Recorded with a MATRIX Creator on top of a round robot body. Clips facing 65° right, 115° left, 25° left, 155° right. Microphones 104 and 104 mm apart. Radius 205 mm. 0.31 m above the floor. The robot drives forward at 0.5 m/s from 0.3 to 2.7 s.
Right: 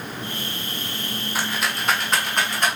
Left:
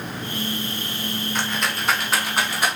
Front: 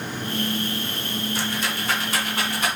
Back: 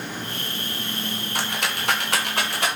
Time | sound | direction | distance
1.4 | a rattle | 150° right | 0.9 m